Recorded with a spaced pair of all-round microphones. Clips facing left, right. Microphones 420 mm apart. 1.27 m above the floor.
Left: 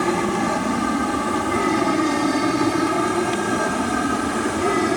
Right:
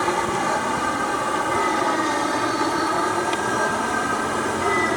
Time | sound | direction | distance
0.0 | an aircraft | 45° left (ahead or behind) | ?